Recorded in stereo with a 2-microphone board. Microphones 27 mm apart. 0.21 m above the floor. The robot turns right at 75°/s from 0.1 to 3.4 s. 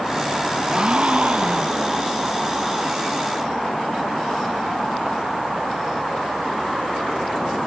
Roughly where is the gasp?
Behind right.